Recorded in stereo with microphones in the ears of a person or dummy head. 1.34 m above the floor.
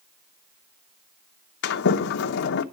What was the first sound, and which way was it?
A sliding door, 75° left (ahead or behind).